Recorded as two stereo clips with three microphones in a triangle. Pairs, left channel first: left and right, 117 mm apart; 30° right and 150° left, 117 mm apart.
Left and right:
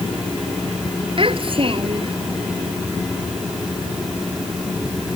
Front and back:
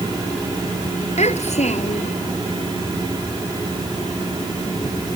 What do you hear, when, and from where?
1.2 s a child speaking: 50° right